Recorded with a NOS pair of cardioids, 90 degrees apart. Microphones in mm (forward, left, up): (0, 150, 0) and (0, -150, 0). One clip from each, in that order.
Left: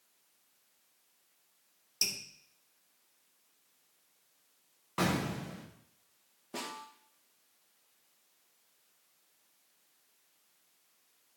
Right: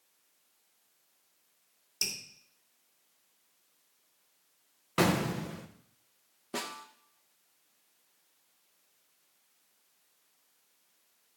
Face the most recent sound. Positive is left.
turn(degrees=-35)